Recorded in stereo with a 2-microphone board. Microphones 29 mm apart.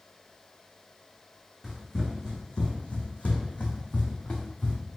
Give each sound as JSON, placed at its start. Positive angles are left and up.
{"t": 1.6, "sound": "running footsteps", "side_deg": 10, "distance_m": 1.5}